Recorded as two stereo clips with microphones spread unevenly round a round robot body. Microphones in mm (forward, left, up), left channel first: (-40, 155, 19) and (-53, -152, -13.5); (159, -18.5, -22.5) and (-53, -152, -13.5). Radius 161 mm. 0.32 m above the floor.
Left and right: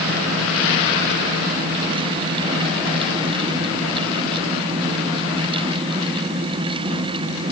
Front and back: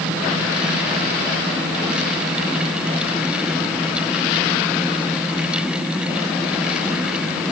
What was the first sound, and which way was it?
Only background noise.